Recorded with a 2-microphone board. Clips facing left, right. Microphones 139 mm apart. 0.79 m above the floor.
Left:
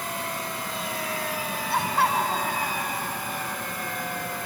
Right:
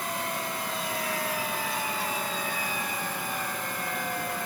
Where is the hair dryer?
I don't hear a hair dryer.